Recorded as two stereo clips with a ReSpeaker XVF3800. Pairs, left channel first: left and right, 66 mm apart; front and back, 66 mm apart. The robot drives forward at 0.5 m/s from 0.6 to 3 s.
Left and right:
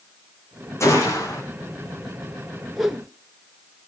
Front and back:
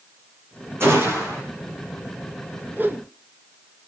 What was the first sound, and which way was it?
A gunshot, 130° left.